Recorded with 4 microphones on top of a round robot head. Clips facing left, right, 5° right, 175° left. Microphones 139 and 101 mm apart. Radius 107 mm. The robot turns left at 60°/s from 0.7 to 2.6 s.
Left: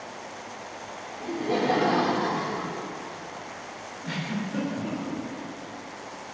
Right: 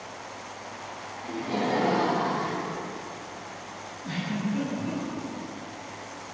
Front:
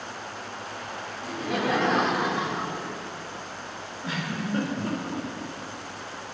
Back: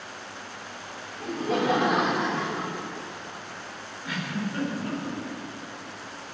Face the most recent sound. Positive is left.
turn(degrees=55)